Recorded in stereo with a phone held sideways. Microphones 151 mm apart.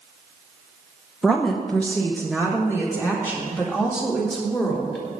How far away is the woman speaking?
About 0.8 m.